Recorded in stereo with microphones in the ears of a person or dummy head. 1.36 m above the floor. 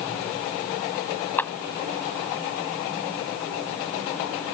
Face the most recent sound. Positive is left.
turn(degrees=5)  # may be behind; listen again after turning